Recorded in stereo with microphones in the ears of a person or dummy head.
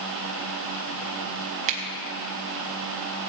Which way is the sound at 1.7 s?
40° right (ahead or behind).